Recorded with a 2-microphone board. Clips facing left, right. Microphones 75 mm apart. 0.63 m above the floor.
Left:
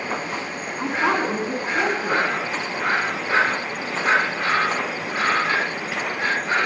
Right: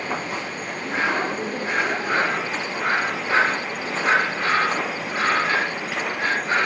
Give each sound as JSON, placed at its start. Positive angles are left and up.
{"t": 0.8, "sound": "a woman speaking", "side_deg": 80, "distance_m": 6.0}